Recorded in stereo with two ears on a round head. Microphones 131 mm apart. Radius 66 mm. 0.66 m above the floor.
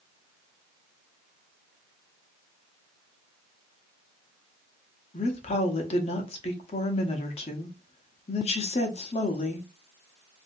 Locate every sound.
5.1 s a woman speaking: 45° left (ahead or behind), 0.9 m